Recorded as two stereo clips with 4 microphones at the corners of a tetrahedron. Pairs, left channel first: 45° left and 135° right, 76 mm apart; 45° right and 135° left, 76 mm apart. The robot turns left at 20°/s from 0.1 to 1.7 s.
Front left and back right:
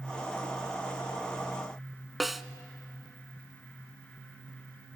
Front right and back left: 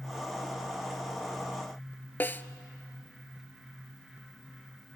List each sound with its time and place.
2.2 s a snare drum: 45° right, 0.6 m